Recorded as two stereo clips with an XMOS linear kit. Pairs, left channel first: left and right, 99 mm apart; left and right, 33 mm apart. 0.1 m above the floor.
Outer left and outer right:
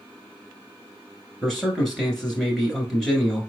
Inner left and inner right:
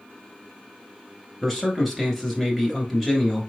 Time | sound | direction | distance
1.4 | a man speaking | 5° left (ahead or behind) | 1.3 m